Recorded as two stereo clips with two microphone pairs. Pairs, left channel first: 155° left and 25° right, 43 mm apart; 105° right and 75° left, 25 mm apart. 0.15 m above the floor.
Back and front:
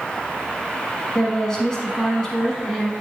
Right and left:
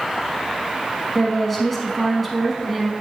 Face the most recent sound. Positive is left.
turn(degrees=180)